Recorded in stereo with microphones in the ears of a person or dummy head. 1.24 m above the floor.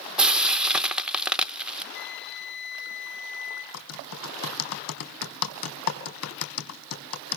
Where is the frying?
5° right (ahead or behind), 0.9 m.